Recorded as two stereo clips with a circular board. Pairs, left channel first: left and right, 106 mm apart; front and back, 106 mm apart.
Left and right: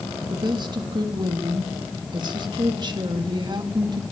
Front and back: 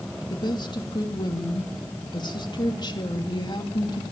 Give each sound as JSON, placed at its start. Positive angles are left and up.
{"t": 0.3, "sound": "a woman speaking", "azimuth_deg": -45, "distance_m": 2.0}